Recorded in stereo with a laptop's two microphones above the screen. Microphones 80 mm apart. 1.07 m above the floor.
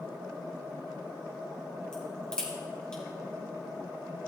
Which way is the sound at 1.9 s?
15° left (ahead or behind).